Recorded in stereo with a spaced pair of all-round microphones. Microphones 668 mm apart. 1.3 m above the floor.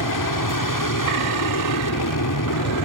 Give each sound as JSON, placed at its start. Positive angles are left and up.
{"t": 0.0, "sound": "an aircraft", "side_deg": 30}